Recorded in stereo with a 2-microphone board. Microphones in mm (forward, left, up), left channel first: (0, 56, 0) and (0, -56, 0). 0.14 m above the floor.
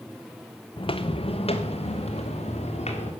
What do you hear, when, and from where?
0.8 s footsteps: 50° left (ahead or behind), 0.8 m; by 3.1 s 65° left (ahead or behind), 3 m